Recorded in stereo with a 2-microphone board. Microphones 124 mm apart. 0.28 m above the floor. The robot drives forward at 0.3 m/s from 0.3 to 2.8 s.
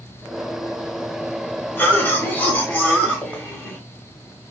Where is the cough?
15° left (ahead or behind), 1.0 m.